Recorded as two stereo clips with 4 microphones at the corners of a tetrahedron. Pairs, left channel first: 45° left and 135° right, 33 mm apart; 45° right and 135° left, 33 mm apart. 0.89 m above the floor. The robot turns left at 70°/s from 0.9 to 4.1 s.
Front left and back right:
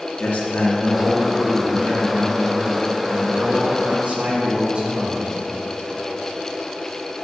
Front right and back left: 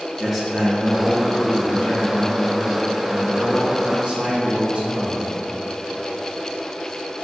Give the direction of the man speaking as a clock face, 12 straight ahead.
11 o'clock.